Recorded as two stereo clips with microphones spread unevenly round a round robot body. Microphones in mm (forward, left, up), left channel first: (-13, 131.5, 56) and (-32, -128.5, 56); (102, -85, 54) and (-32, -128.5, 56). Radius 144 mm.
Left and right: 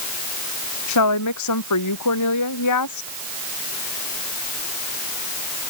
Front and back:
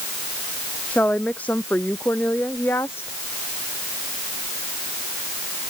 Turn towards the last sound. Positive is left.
turn(degrees=100)